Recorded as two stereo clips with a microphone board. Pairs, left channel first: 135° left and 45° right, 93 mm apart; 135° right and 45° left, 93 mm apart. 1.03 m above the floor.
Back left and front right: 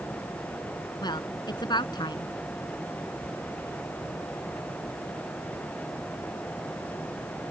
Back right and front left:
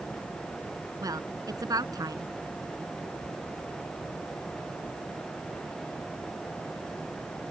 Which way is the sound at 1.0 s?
95° left.